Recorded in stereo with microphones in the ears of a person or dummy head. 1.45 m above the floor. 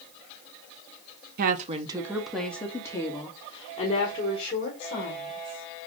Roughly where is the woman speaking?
Right.